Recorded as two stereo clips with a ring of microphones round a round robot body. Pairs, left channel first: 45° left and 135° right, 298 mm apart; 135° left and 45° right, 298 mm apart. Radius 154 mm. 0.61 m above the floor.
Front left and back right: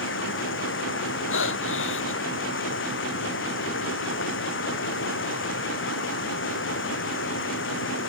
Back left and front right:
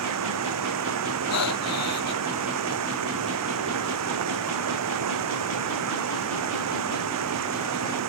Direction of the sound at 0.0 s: 5° right.